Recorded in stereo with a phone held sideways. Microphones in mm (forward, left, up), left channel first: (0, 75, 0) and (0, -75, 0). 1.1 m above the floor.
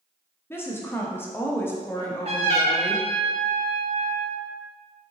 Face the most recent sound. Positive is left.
turn(degrees=-40)  # may be behind; listen again after turning